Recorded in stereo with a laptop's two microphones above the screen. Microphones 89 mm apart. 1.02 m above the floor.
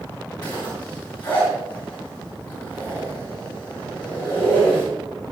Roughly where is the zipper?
Left.